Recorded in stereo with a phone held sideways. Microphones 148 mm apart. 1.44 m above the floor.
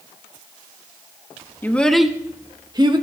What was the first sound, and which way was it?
A child speaking, 15° left (ahead or behind).